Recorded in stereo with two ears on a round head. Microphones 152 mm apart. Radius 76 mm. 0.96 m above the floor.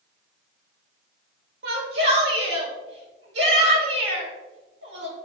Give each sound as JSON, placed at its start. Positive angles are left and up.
{"t": 1.6, "sound": "a shout", "side_deg": -70, "distance_m": 2.5}